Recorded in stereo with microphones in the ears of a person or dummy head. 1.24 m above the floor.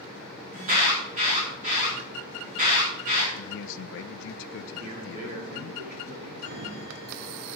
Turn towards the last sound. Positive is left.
turn(degrees=-55)  # may be behind; listen again after turning